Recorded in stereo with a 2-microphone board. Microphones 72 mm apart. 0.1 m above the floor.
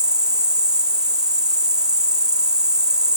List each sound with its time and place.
0.0 s an insect: 55° right (ahead or behind), 2.0 m